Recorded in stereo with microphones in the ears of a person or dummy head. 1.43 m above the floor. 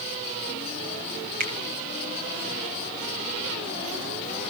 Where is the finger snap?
50° right (ahead or behind), 1.4 m.